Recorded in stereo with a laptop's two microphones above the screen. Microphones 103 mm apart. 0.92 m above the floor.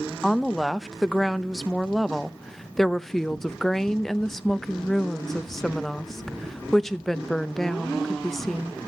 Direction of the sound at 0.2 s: 5° left (ahead or behind).